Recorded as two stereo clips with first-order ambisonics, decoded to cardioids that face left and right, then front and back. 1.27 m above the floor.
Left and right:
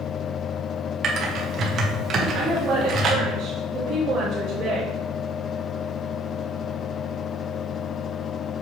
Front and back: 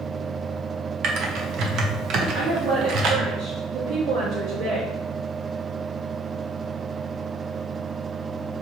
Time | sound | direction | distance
1.0 | typing on a keyboard | 140° right | 1.1 m
2.3 | a woman speaking | 145° right | 1.7 m